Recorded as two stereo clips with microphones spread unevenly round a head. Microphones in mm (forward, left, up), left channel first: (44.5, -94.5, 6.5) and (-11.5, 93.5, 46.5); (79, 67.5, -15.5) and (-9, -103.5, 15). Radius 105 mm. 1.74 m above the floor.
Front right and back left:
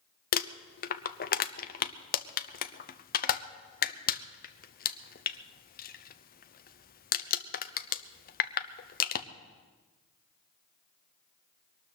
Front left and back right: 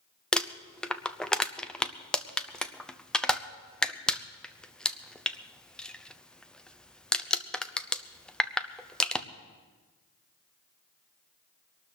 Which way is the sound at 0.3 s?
25° right.